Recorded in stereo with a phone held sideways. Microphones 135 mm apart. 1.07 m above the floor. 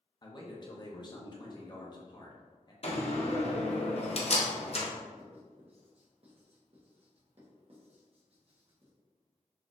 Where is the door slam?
50° left (ahead or behind), 0.7 m.